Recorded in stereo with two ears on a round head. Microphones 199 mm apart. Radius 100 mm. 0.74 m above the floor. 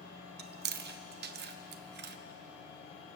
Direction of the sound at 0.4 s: 45° right (ahead or behind).